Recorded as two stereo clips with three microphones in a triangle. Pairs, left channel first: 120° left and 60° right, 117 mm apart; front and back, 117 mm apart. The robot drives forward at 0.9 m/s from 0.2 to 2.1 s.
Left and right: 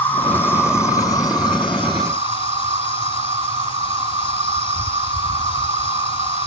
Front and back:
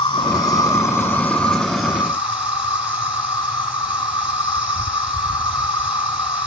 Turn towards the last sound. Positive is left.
turn(degrees=110)